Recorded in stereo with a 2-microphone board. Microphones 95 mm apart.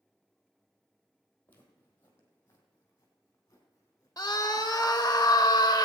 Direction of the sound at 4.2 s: 35° left (ahead or behind).